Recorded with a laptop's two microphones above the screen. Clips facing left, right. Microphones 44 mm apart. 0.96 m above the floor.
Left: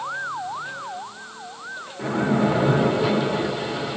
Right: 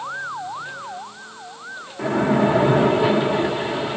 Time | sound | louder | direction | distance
2.0 | a splash | right 3 dB | 30° right (ahead or behind) | 1.1 m